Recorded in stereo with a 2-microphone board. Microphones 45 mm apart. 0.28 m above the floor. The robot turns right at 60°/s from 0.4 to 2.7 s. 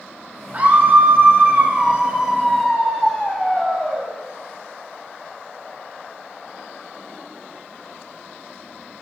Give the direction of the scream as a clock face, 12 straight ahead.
4 o'clock.